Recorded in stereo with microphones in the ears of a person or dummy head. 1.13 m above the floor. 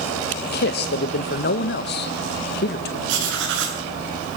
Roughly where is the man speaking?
Left.